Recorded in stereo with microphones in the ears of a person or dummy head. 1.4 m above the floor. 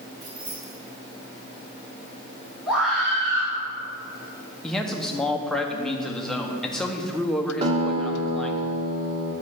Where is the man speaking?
5° left (ahead or behind), 0.7 m.